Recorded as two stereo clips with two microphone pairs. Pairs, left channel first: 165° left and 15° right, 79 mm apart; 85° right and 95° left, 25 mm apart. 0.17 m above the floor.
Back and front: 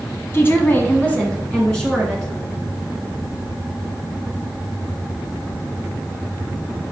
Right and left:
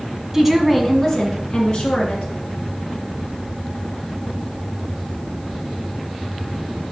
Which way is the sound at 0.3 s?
160° left.